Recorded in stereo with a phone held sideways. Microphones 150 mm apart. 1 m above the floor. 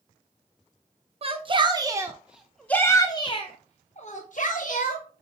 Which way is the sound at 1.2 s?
40° right (ahead or behind).